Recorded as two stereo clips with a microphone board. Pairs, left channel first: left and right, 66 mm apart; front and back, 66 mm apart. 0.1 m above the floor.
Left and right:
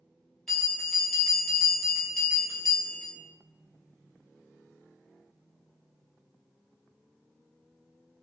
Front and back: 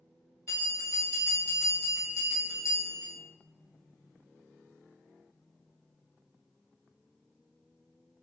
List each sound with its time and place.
0.5 s a bell: 10° left, 1.7 m